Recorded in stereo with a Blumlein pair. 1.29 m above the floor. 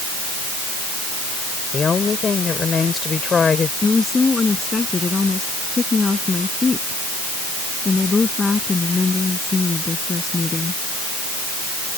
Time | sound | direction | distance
1.7 | a woman speaking | 15° left | ?
3.8 | a woman speaking | 10° left | ?